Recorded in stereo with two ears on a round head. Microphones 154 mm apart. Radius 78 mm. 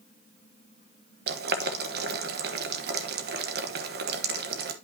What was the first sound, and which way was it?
Boiling, 60° right (ahead or behind).